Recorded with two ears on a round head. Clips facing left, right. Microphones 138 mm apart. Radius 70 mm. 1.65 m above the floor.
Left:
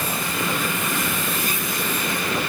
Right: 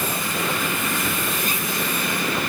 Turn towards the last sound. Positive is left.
No sound to turn to.